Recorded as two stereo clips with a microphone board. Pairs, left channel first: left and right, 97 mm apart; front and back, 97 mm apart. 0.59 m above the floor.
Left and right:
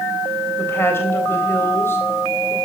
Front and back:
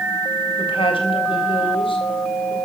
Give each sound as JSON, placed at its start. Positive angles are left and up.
{"t": 0.6, "sound": "a woman speaking", "azimuth_deg": 25, "distance_m": 3.5}